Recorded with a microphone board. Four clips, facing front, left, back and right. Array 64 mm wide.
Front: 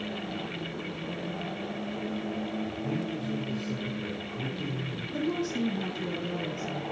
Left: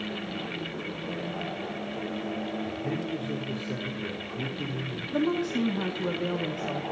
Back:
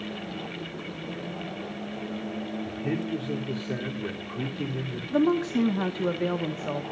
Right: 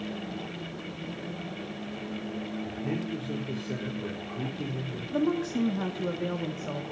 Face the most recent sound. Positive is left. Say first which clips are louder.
# left 1 dB, back 8 dB
turn(degrees=175)